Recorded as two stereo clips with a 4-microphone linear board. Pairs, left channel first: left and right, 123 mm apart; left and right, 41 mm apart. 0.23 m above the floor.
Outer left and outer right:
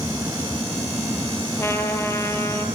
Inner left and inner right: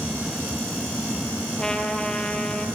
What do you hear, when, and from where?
1.6 s a trumpet: 20° left (ahead or behind), 3 m